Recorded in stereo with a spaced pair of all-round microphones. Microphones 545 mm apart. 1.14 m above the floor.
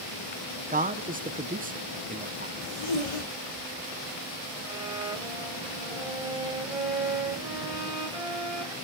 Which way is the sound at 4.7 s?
10° right (ahead or behind).